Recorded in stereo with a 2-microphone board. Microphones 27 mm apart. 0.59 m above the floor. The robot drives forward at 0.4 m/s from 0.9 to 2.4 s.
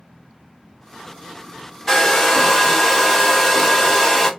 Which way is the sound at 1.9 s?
20° left (ahead or behind).